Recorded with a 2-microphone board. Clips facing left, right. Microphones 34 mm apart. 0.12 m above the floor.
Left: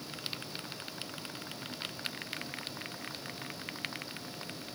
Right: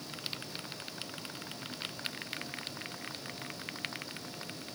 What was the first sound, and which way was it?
Only background noise.